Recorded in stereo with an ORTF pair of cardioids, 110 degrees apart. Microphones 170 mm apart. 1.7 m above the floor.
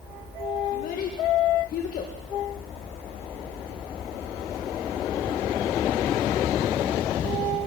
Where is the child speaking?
65° left, 1.5 m.